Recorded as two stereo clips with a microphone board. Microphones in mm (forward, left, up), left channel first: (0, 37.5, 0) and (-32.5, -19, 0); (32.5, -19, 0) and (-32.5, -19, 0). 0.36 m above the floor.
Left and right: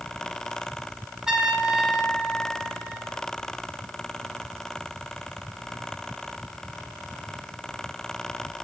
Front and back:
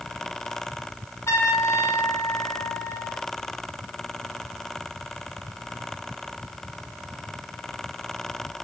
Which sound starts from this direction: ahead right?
A trumpet, at 1.3 s.